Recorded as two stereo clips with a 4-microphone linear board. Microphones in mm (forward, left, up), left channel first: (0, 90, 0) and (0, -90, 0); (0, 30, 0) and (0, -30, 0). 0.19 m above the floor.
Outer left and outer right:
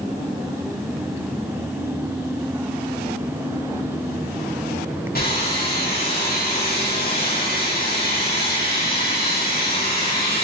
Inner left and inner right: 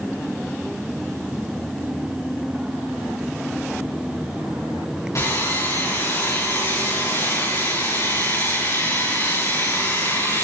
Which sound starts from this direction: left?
Sawing, at 5.2 s.